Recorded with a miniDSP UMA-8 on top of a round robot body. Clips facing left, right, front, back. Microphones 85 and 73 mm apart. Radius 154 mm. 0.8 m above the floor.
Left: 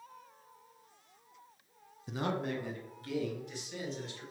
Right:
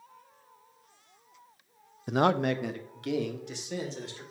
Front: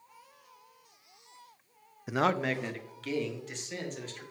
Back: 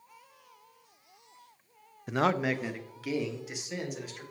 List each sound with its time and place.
2.1 s a man speaking: 80° right, 0.5 m; by 4.2 s 100° right, 3.5 m